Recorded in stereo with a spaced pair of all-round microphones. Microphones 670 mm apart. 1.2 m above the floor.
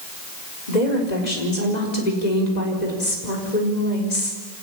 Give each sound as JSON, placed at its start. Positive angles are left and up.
{"t": 0.7, "sound": "a woman speaking", "side_deg": 70, "distance_m": 4.5}